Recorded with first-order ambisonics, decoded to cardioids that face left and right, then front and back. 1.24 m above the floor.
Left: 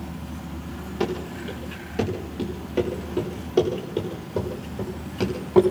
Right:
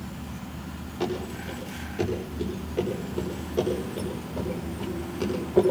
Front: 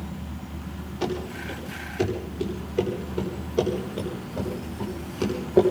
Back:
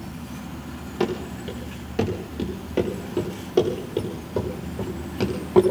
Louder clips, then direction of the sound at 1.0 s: Left 3 dB, back 3 dB; 160° left.